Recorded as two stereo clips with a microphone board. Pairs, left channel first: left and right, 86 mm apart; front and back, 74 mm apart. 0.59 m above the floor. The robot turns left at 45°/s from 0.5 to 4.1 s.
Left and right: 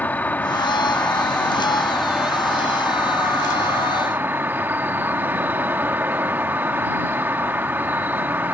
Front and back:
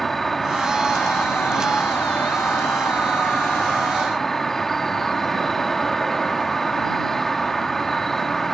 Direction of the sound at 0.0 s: 80° left.